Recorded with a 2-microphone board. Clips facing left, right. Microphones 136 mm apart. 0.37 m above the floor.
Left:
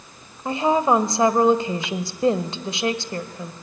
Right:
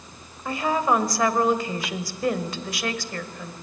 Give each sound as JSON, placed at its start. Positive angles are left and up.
{"t": 0.5, "sound": "a woman speaking", "side_deg": 25, "distance_m": 1.2}